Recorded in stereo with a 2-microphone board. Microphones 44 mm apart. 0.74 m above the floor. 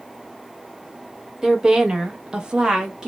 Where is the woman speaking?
10° right (ahead or behind), 0.7 m; by 3.1 s 15° right (ahead or behind), 0.5 m.